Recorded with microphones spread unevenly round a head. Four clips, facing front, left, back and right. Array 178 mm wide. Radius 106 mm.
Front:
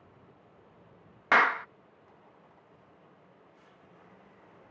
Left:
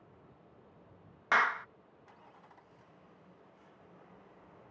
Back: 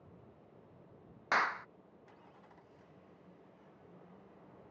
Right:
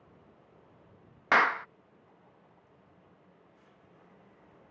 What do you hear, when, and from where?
1.3 s a clap: 35° right